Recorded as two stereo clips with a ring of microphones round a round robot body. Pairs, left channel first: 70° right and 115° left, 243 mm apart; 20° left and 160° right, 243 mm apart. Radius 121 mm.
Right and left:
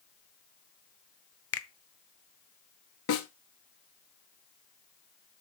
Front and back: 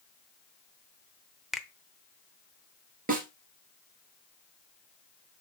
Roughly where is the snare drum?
Right.